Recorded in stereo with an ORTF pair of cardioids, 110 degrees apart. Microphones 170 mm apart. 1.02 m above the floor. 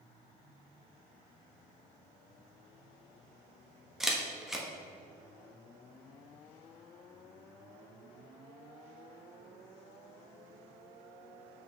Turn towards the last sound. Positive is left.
turn(degrees=0)